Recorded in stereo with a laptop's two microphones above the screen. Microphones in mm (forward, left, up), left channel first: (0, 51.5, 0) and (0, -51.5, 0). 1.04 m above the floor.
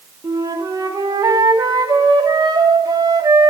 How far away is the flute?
About 0.9 m.